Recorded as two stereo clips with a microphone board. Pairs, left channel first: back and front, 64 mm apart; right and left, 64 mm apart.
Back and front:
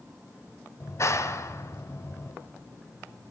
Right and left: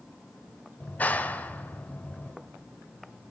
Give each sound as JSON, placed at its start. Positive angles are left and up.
{"t": 0.8, "sound": "a clap", "azimuth_deg": -150, "distance_m": 1.5}